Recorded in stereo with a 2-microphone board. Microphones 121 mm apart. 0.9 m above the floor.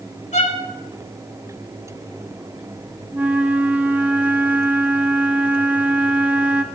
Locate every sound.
0.3 s a violin: 80° left, 2.5 m
3.1 s a flute: 10° right (ahead or behind), 1.3 m